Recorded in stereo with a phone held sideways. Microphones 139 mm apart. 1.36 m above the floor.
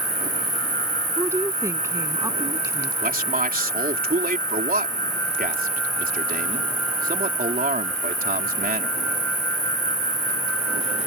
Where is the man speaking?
80° right.